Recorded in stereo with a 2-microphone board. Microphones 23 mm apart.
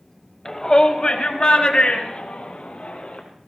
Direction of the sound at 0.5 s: 25° left (ahead or behind).